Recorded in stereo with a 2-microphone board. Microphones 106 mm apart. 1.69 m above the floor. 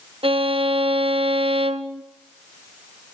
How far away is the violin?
About 1.4 m.